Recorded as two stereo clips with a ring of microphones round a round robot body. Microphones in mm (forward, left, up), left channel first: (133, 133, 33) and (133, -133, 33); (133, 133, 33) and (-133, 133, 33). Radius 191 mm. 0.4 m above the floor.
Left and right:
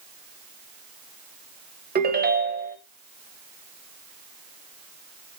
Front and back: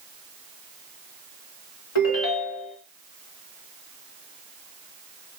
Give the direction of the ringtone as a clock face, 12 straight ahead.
1 o'clock.